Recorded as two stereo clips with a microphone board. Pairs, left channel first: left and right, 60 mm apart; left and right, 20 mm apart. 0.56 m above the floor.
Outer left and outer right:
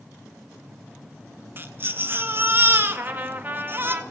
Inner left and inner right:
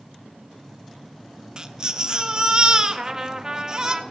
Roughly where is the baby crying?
Right.